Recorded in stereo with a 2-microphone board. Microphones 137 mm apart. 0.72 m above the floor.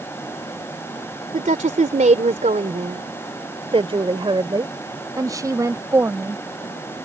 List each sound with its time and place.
1.3 s a woman speaking: 70° right (ahead or behind); by 6.4 s 20° right (ahead or behind)